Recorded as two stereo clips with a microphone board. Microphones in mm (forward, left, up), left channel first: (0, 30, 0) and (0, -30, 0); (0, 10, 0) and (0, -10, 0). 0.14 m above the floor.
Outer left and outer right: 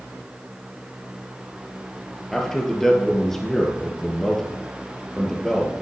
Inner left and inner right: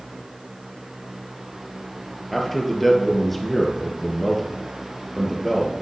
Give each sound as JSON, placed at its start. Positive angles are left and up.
{"t": 2.3, "sound": "a man speaking", "side_deg": 5, "distance_m": 2.5}